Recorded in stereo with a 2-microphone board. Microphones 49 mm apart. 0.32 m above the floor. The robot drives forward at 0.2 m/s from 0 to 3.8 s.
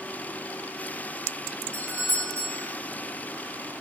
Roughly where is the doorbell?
Right.